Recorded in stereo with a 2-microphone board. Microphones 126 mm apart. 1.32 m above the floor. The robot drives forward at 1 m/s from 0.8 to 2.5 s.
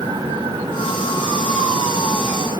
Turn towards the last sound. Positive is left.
No sound to turn to.